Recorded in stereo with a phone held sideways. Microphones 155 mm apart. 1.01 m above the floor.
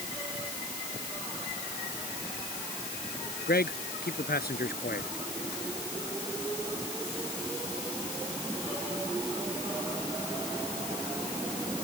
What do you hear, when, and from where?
3.5 s a man speaking: 80° left